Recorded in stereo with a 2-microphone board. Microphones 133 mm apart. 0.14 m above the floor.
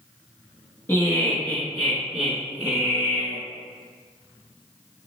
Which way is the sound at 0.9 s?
20° left (ahead or behind).